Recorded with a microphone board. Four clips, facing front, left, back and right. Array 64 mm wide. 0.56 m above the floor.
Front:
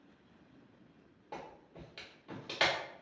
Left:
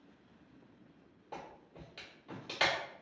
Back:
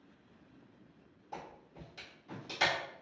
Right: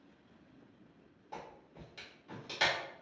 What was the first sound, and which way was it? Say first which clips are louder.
A clap: even, even; 20° left.